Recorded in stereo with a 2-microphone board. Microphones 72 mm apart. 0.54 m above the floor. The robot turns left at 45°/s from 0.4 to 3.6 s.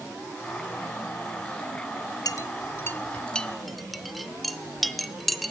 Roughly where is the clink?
Left.